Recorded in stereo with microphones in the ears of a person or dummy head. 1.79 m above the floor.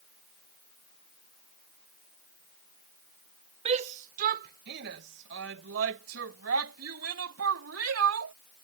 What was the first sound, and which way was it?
A shout, 35° right (ahead or behind).